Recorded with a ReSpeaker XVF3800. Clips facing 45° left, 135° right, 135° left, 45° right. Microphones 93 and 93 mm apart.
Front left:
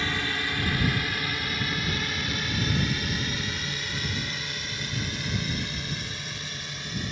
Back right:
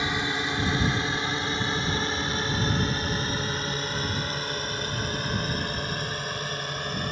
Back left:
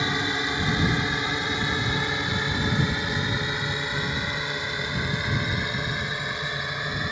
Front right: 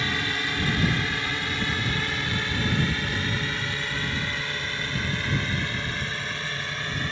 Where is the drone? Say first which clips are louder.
Back right 2 dB, back left 2 dB; straight behind; by 7.1 s 155° right.